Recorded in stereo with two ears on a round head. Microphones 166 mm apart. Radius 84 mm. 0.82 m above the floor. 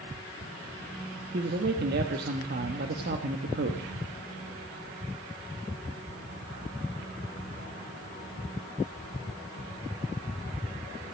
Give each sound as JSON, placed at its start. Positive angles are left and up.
{"t": 1.3, "sound": "a man speaking", "side_deg": -60, "distance_m": 1.2}